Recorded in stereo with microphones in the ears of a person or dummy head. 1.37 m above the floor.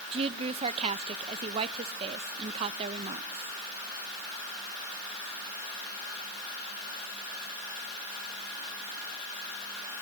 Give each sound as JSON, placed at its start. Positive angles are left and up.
{"t": 0.1, "sound": "a woman speaking", "side_deg": -30, "distance_m": 0.9}